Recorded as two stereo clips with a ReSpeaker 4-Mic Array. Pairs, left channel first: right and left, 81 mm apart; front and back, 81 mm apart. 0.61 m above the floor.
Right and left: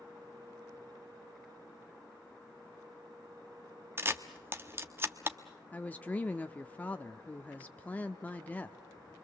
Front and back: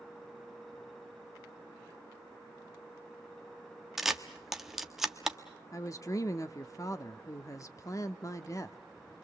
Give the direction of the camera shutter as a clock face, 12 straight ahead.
9 o'clock.